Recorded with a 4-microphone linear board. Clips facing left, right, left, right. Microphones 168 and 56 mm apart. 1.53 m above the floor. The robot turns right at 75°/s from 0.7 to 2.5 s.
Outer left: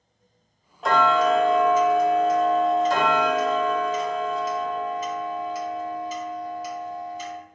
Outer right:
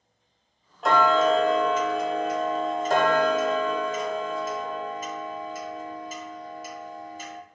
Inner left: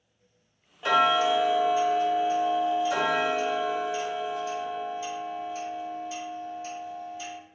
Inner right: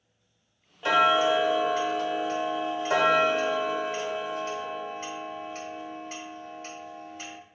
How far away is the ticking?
About 0.8 m.